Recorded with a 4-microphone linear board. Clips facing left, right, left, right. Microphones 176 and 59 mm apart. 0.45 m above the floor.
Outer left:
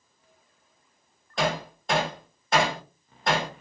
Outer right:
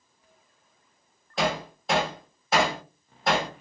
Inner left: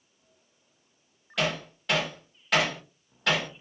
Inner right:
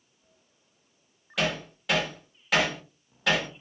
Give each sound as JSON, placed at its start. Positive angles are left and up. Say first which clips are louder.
{"t": 1.4, "sound": "hammering", "louder": "even, even", "side_deg": -5, "distance_m": 1.2}